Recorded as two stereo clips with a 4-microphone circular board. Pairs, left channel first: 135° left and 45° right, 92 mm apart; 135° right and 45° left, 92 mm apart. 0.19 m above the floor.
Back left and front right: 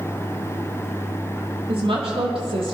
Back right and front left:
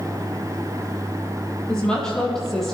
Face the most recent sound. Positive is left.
turn(degrees=-50)